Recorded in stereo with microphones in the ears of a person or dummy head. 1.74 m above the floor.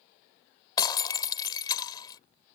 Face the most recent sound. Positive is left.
turn(degrees=25)  # may be behind; listen again after turning